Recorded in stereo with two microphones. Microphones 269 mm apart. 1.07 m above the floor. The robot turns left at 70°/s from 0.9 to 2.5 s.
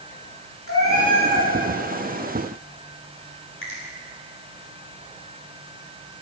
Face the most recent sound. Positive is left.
turn(degrees=50)  # may be behind; listen again after turning